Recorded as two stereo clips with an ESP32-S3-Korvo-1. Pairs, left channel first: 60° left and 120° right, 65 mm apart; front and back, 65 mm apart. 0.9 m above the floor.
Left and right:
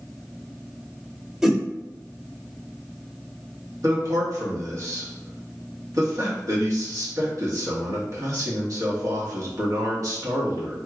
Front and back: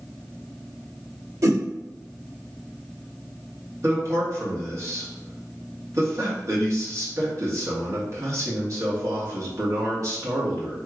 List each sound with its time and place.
1.4 s a whoosh: 160° left, 0.9 m
3.8 s a man speaking: 150° right, 1.8 m